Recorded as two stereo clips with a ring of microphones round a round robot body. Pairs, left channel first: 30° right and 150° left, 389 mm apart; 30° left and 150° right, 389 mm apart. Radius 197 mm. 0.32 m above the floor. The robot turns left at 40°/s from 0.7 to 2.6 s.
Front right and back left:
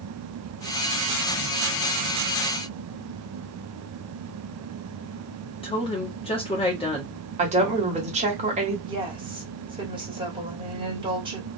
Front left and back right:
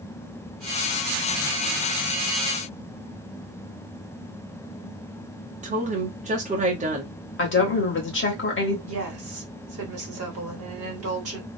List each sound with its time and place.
5.6 s a woman speaking: 95° right, 1.1 m
7.4 s a woman speaking: 80° left, 1.2 m
8.9 s a woman speaking: 140° right, 1.4 m